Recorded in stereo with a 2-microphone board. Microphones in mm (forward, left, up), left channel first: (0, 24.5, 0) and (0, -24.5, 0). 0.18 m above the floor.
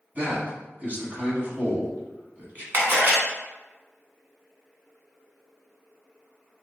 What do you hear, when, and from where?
0.1 s a man speaking: 35° right (ahead or behind), 1.2 m
2.7 s a camera shutter: 40° right (ahead or behind), 1.1 m